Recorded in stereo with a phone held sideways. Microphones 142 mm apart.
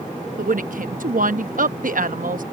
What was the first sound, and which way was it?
A woman speaking, 75° right (ahead or behind).